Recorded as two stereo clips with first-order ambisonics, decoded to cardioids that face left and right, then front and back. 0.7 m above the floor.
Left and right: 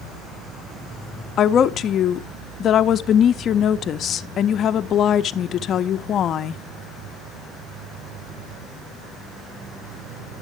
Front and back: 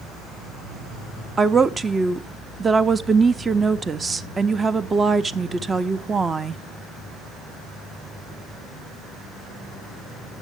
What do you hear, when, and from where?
1.4 s a woman speaking: 115° left, 0.6 m